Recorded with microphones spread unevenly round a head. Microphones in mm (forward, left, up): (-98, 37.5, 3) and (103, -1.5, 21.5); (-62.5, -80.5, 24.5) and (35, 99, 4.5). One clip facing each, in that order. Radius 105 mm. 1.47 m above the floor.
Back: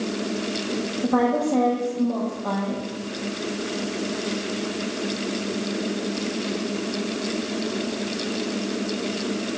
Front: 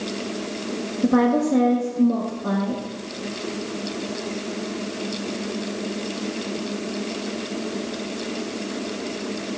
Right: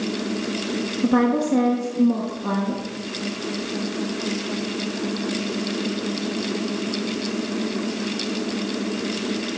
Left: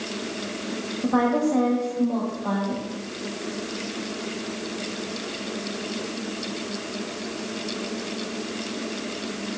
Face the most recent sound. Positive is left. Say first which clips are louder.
# front 4 dB, right 2 dB
turn(degrees=-75)